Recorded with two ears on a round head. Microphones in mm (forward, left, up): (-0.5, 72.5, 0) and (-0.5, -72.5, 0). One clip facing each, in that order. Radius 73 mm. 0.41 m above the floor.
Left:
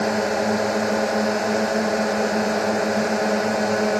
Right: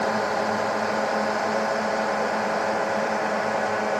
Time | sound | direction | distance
0.0 | a drone | 35° left (ahead or behind) | ?